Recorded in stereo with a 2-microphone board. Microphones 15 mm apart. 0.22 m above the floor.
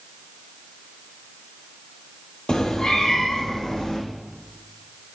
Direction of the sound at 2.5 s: 65° left (ahead or behind).